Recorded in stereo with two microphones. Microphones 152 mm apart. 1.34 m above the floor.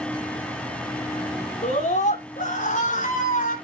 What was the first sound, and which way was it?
A scream, 55° left (ahead or behind).